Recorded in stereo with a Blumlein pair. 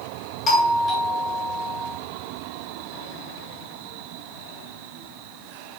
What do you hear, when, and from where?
0.5 s a doorbell: 25° left, 1.9 m